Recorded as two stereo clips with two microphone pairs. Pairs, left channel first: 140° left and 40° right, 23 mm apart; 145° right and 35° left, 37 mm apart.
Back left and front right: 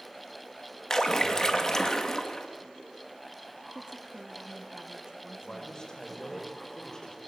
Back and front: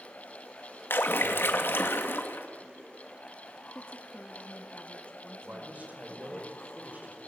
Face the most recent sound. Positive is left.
turn(degrees=80)